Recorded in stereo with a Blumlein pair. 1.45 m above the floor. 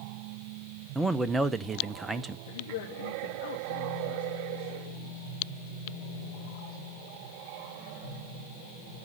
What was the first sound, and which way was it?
A man speaking, 10° right.